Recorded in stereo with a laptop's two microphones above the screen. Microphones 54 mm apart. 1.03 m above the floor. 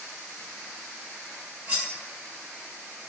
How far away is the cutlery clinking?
About 0.6 m.